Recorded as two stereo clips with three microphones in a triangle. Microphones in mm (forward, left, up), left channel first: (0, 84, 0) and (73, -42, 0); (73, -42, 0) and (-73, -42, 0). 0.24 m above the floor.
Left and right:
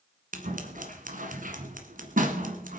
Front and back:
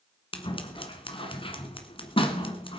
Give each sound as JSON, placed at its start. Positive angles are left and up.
{"t": 0.3, "sound": "scissors", "azimuth_deg": -50, "distance_m": 1.4}